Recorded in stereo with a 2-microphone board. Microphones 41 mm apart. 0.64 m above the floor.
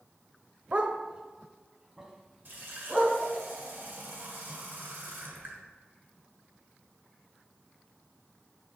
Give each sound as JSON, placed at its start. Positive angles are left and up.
{"t": 0.7, "sound": "a dog barking", "side_deg": -35, "distance_m": 0.6}
{"t": 2.5, "sound": "a running tap", "side_deg": -55, "distance_m": 1.6}